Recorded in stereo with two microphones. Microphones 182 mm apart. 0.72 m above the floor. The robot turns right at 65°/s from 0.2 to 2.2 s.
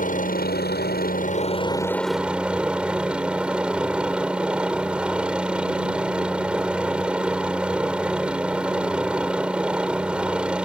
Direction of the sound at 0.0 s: 55° left.